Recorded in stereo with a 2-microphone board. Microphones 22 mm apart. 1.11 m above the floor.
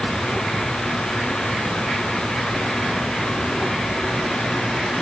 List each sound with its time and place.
Only background noise.